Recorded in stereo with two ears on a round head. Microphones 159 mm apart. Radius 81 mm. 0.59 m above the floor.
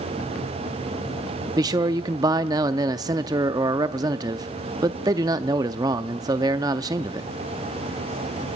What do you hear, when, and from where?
1.6 s a man speaking: 20° right (ahead or behind), 0.6 m